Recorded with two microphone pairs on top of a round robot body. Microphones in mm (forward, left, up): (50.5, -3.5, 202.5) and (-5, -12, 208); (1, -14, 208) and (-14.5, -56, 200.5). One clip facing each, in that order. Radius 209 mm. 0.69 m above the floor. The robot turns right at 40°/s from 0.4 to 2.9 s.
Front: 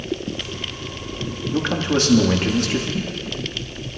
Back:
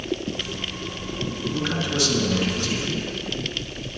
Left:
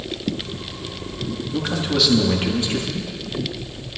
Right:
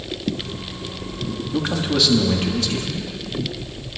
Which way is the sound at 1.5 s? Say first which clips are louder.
Front 6 dB, right 1 dB; 45° right.